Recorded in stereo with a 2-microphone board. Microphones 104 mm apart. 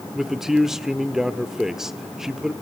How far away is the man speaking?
About 0.8 m.